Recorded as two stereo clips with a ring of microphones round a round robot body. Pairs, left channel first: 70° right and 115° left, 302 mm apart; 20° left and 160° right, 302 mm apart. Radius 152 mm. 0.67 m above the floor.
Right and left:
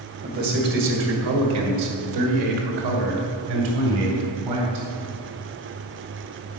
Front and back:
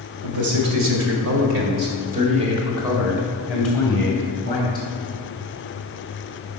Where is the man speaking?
175° left, 2.5 m; by 4.9 s 95° left, 3.5 m.